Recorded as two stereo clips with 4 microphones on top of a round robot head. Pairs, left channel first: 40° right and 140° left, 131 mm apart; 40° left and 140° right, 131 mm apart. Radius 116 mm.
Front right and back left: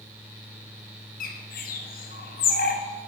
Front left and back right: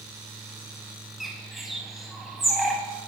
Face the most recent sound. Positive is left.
turn(degrees=-50)